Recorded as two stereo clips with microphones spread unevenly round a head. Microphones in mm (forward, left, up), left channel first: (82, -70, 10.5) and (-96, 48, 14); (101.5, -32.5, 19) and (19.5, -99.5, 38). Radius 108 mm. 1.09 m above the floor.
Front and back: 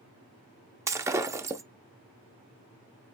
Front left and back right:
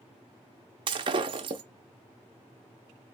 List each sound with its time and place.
0.9 s breaking glass: 140° right, 0.6 m